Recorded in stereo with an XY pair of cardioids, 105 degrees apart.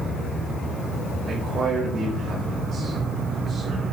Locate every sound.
1.2 s a man speaking: 50° right, 4.5 m